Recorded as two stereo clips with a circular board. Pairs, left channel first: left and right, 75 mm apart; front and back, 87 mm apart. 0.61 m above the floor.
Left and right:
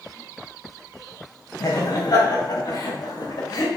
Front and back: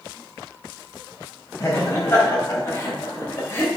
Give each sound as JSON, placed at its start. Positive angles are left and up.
{"t": 1.6, "sound": "laughter", "azimuth_deg": 60, "distance_m": 4.0}